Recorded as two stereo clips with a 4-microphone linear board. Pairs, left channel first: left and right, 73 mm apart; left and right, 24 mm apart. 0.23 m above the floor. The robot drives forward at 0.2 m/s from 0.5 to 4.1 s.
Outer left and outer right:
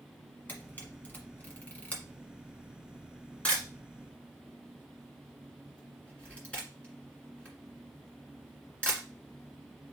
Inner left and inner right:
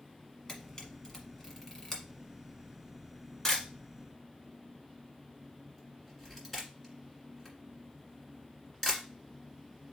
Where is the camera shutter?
25° left (ahead or behind), 1.3 m; by 9.0 s 15° left (ahead or behind), 1.9 m.